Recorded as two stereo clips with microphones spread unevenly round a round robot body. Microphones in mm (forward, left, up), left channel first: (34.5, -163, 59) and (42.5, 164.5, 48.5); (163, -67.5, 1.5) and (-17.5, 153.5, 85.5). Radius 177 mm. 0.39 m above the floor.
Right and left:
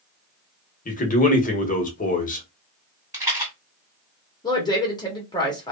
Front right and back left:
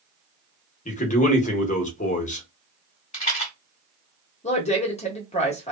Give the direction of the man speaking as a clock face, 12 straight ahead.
1 o'clock.